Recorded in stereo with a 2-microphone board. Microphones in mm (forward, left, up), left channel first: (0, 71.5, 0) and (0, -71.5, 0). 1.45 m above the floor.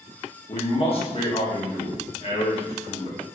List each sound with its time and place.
0.5 s a man speaking: 45° left (ahead or behind), 1.3 m